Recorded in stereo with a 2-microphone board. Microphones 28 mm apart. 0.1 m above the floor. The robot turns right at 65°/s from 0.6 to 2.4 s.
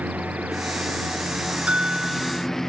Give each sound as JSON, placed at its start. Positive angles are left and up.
{"t": 0.0, "sound": "a lawn mower", "side_deg": -80}
{"t": 1.7, "sound": "a bell", "azimuth_deg": -55}